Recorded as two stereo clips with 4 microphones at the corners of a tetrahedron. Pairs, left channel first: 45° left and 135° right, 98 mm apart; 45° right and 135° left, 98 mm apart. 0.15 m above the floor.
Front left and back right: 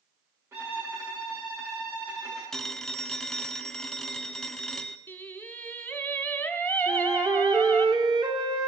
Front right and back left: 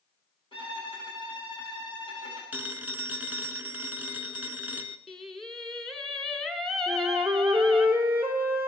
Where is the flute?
160° right, 1.8 m.